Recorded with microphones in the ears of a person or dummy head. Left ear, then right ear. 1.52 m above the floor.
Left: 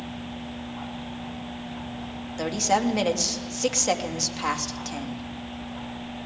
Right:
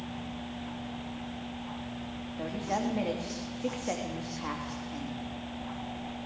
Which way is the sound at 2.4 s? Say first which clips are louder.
Left 9 dB; 85° left.